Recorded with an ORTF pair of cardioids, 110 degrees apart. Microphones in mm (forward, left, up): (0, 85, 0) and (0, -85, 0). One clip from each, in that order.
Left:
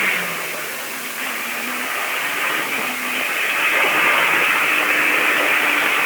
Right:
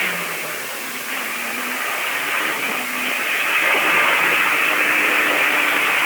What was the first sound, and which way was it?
Only background noise.